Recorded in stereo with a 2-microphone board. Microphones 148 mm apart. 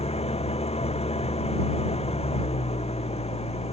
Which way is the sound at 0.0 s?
45° left (ahead or behind).